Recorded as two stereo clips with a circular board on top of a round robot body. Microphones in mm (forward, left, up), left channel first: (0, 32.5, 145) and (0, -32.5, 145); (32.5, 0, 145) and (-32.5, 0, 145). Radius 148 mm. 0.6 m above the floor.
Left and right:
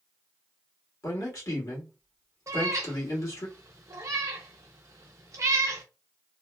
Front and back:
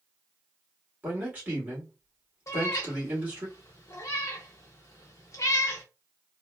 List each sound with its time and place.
1.0 s a man speaking: 115° left, 2 m
2.5 s a cat meowing: 45° right, 0.6 m